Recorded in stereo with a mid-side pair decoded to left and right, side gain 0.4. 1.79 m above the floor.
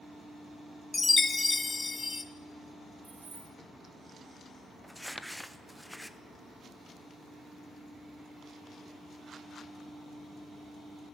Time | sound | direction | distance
0.9 | a chime | 30° left | 0.8 m
3.0 | keys jangling | 50° right | 2.5 m
4.8 | crumpling | straight ahead | 0.7 m